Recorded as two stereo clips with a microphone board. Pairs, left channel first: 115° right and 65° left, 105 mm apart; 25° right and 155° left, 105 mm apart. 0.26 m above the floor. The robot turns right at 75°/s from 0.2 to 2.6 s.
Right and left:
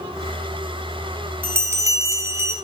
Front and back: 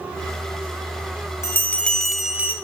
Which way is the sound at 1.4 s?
15° left.